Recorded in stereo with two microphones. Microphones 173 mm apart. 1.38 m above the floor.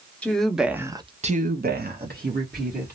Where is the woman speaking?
5° left (ahead or behind), 1.0 m; by 2.9 s 55° right (ahead or behind), 1.4 m.